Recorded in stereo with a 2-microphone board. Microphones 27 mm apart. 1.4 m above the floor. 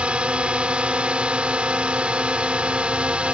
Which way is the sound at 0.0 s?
45° right (ahead or behind).